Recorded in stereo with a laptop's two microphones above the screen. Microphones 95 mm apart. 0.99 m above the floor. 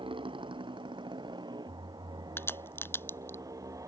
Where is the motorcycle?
60° right (ahead or behind); by 3.9 s 35° right (ahead or behind).